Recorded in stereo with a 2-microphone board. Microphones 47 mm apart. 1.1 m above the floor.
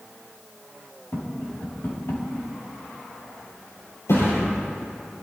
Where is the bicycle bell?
No bicycle bell in this recording.